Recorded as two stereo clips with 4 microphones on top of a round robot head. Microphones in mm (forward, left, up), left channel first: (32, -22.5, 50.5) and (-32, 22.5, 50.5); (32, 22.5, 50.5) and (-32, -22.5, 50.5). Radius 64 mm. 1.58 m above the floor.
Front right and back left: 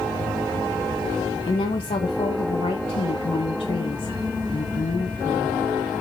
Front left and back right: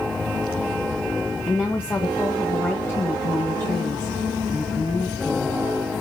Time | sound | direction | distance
1.5 | a woman speaking | 35° right | 1.5 m